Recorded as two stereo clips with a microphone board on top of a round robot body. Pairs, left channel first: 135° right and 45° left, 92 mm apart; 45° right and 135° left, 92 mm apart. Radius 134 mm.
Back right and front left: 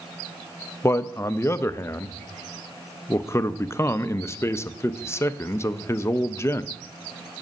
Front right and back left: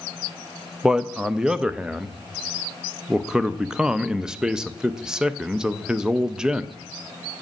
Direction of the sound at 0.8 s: 150° right.